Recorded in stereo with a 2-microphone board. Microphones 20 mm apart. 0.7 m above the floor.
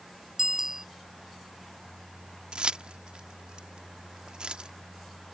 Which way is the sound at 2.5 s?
60° right (ahead or behind).